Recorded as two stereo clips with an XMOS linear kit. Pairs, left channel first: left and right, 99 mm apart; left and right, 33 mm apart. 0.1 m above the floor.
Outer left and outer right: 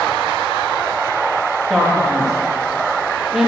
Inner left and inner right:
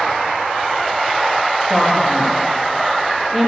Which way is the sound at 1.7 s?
5° right (ahead or behind).